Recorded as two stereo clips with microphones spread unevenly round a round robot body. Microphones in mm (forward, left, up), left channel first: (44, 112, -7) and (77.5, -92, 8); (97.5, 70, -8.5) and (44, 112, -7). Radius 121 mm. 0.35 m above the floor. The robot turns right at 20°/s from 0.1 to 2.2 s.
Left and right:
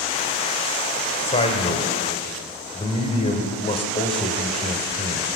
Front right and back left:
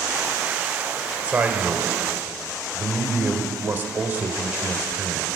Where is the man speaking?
95° left, 1.4 m; by 5.3 s 115° left, 1.4 m.